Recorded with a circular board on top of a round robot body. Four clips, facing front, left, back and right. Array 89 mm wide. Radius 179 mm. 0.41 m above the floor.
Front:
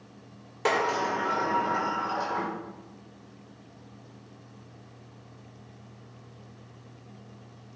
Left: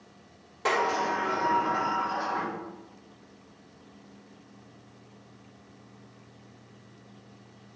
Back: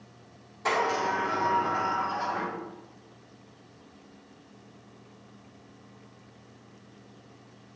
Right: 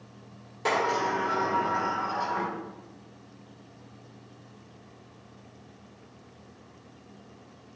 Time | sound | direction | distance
0.7 | a sliding door | 10° left | 1.6 m